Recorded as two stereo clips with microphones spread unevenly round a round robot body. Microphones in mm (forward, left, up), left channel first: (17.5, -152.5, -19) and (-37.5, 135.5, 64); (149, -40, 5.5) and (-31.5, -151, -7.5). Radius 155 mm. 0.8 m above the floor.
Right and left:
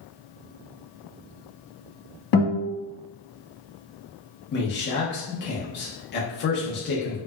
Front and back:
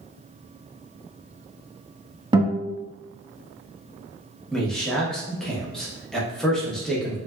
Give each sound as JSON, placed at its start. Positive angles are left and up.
{"t": 2.3, "sound": "a guitar", "azimuth_deg": -80, "distance_m": 1.3}
{"t": 4.5, "sound": "a man speaking", "azimuth_deg": -60, "distance_m": 0.8}